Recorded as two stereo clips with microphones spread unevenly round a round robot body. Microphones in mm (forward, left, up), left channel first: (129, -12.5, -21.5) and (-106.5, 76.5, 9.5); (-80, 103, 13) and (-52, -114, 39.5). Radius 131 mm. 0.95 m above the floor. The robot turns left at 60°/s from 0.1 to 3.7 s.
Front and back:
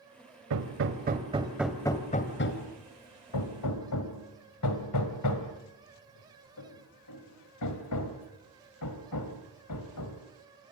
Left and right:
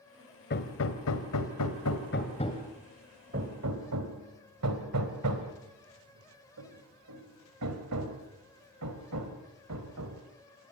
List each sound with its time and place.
0.5 s hammering: 140° left, 2 m; by 10.2 s 50° right, 2 m